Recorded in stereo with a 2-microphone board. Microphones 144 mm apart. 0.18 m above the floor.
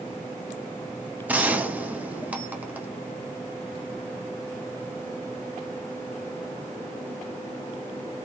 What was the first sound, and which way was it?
A gunshot, 10° right (ahead or behind).